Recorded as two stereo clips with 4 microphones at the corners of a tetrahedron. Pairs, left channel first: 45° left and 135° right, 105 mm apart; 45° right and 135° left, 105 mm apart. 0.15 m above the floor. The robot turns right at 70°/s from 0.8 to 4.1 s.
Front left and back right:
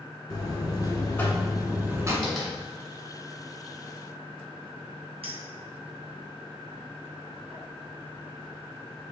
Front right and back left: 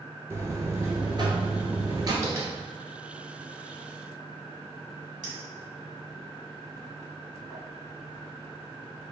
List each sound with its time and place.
0.3 s a buzzer: 85° left, 0.8 m; by 2.1 s 175° left, 0.8 m
2.2 s tapping: 120° left, 1.2 m; by 2.5 s 140° left, 1.2 m
5.2 s a clink: 130° right, 1.9 m